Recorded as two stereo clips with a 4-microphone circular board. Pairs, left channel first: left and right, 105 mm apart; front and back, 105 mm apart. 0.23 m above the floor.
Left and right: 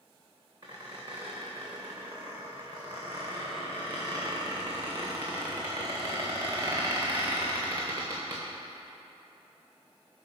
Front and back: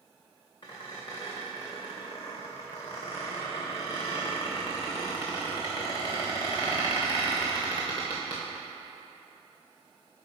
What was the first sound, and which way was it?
A squeak, 50° right.